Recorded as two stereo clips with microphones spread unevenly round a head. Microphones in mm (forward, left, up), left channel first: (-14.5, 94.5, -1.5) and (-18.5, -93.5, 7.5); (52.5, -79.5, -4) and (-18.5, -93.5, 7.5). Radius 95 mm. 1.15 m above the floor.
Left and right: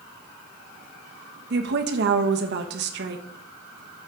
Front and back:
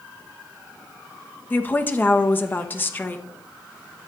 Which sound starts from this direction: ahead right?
A woman speaking, at 1.5 s.